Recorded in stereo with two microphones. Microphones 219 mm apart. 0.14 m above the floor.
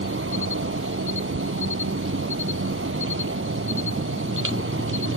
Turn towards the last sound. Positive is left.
turn(degrees=-70)  # may be behind; listen again after turning